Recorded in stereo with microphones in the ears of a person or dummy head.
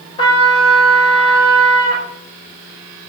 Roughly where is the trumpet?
Left.